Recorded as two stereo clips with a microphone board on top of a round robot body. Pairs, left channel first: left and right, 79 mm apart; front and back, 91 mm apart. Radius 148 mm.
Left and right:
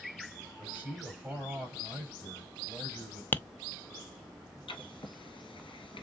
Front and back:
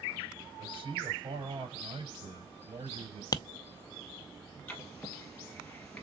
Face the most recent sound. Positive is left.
turn(degrees=80)